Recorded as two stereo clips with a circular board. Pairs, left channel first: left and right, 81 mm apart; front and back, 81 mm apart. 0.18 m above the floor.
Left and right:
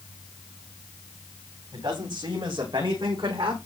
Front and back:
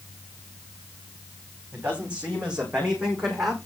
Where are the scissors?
No scissors in this recording.